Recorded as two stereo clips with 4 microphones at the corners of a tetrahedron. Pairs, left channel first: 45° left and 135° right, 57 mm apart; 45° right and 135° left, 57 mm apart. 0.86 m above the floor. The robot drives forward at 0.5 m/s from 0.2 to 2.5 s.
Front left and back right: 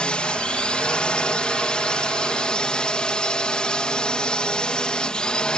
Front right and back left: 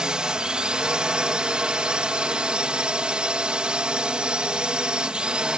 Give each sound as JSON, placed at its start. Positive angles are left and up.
{"t": 0.0, "sound": "a drone", "azimuth_deg": 85}